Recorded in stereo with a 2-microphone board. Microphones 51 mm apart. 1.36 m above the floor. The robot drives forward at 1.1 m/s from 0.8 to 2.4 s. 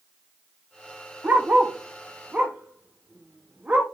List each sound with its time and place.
1.2 s a dog barking: 30° right (ahead or behind), 1.1 m; by 3.8 s 25° right (ahead or behind), 1.3 m